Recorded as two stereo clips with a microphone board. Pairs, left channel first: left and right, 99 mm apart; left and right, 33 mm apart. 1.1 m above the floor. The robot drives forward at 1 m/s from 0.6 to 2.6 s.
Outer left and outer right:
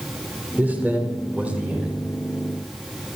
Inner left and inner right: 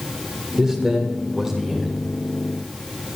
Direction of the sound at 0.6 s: 15° right (ahead or behind).